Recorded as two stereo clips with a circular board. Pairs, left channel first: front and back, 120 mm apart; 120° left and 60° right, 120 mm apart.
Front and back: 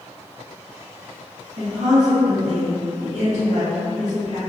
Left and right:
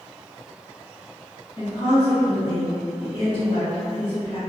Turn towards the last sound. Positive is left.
turn(degrees=170)